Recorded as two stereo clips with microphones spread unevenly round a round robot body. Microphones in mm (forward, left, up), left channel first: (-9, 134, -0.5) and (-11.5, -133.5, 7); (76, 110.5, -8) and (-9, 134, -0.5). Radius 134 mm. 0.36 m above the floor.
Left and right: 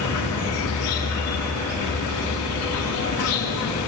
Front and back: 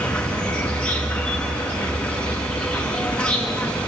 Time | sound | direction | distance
0.0 | an insect | 55° left | 5 m